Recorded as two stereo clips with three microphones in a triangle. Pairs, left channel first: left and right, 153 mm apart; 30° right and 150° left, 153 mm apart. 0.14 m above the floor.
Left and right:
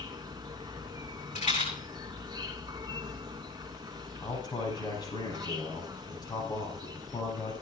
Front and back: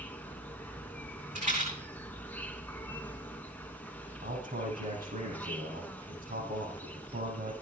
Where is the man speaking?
150° left, 6.5 m.